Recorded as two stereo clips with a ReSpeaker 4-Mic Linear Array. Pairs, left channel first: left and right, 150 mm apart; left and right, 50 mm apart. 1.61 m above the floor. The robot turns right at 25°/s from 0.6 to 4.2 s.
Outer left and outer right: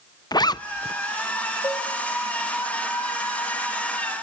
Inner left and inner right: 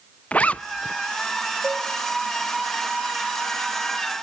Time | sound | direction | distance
0.3 | a zipper | 25° left (ahead or behind) | 0.6 m
1.6 | a cowbell | 20° left (ahead or behind) | 3.5 m